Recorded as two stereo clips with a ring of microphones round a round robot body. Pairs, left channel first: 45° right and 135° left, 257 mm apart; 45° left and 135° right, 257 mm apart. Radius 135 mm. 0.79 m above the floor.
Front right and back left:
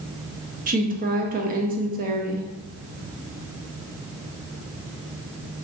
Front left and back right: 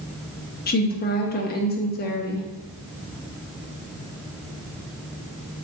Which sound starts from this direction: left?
A woman speaking, at 0.7 s.